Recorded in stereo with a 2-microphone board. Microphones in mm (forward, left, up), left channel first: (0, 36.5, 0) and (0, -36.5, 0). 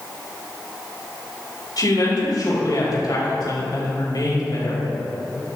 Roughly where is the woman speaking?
Left.